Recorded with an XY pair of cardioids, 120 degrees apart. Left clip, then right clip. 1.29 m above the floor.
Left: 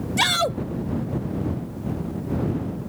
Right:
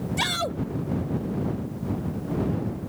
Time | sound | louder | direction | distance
0.2 | a shout | left 6 dB | 30° left | ?